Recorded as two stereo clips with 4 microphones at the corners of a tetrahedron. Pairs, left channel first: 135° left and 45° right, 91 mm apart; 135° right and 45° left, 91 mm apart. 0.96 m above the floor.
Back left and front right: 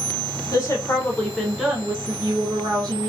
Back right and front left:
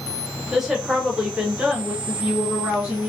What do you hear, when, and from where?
0.5 s a woman speaking: 130° left, 1.0 m; by 3.1 s 30° right, 1.2 m